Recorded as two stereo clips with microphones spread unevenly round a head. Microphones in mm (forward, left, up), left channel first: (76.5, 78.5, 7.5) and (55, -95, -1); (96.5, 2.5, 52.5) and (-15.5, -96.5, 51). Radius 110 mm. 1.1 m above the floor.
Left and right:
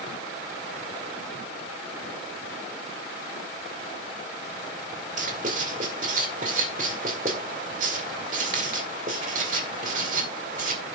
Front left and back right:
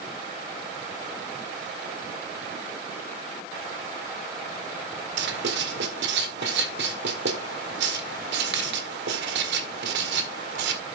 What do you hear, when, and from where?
5.2 s writing: 155° right, 1.7 m